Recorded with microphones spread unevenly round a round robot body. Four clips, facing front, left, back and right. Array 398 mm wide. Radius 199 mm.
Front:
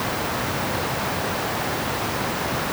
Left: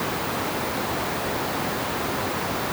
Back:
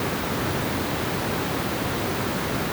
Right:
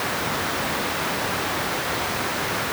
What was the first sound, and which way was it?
Only background noise.